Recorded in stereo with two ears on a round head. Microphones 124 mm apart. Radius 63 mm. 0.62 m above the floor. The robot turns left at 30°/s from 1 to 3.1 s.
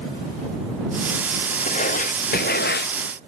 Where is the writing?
130° left; by 2.9 s 90° left.